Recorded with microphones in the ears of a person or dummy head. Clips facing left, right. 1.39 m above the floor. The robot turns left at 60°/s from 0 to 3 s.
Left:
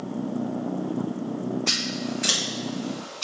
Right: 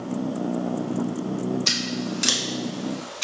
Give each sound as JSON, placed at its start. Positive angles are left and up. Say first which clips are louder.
{"t": 1.7, "sound": "scissors", "louder": "right 1 dB", "side_deg": -50, "distance_m": 0.8}